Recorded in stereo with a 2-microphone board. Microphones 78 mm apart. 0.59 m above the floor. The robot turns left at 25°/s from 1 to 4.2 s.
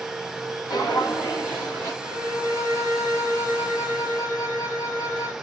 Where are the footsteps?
55° left (ahead or behind), 1.3 m.